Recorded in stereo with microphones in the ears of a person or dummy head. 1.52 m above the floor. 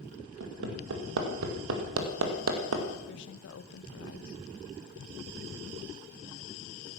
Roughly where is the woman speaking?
Left.